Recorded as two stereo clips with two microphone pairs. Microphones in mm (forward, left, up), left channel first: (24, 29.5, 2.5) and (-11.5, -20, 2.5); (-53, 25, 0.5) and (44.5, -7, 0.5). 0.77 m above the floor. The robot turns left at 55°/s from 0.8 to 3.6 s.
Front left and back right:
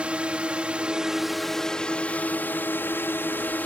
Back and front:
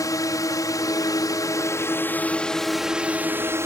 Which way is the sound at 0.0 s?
175° left.